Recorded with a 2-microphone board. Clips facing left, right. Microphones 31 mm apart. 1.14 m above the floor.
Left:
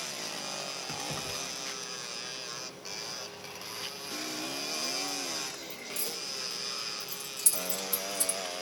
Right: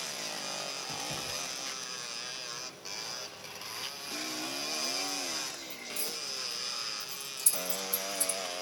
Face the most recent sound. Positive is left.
turn(degrees=75)  # may be behind; listen again after turning